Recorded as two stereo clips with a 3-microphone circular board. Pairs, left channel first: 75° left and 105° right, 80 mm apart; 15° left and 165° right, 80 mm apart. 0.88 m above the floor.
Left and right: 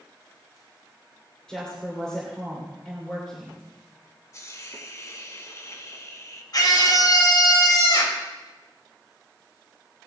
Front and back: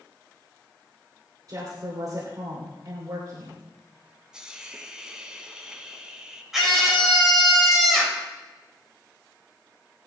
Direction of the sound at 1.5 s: 155° left.